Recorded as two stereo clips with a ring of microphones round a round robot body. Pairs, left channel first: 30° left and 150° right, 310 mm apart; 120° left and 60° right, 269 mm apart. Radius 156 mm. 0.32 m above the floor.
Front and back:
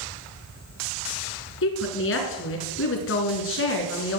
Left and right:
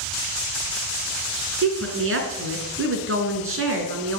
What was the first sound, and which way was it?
A woman speaking, 20° right.